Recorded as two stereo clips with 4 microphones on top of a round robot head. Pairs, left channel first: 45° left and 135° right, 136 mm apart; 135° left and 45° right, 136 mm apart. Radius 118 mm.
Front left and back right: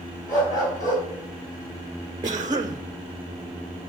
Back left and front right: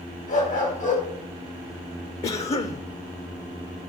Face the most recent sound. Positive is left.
turn(degrees=170)